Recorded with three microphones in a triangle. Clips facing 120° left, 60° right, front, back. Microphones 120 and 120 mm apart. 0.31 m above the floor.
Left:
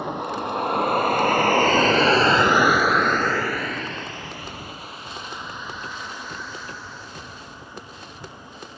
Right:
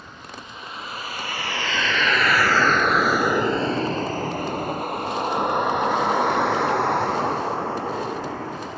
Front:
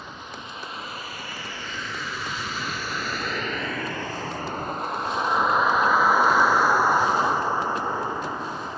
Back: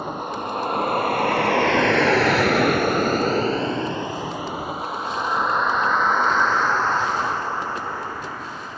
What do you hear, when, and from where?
0.0 s a vehicle: 145° left; by 8.8 s 75° right